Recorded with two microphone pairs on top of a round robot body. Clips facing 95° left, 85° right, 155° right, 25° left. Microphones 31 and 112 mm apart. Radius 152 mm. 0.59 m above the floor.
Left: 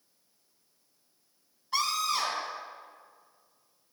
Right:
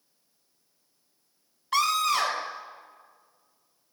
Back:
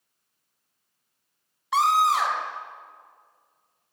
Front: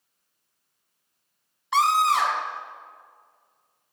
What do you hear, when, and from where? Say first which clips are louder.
1.7 s a scream: right 5 dB, even; 70° right, 3 m